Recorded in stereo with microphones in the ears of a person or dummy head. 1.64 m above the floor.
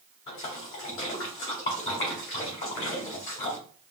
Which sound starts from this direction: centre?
A splash, at 0.3 s.